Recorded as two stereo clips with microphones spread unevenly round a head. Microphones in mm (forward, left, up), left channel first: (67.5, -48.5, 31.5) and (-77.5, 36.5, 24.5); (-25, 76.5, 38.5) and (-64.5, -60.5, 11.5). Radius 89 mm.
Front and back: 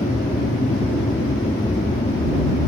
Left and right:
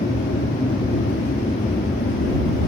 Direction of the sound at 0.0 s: 35° left.